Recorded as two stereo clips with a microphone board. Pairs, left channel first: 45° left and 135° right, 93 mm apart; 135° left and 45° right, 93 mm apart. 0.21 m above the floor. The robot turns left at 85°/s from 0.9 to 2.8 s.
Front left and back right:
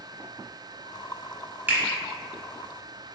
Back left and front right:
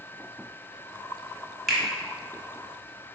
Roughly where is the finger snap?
Behind right.